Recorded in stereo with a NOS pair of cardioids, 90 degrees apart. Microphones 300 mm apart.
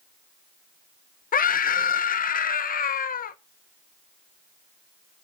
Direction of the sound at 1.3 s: 30° left.